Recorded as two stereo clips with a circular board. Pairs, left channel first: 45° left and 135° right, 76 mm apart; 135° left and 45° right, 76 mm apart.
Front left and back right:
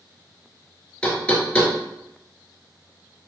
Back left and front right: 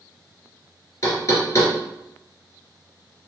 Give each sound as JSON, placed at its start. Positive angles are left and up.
{"t": 1.0, "sound": "knocking", "azimuth_deg": 115, "distance_m": 1.3}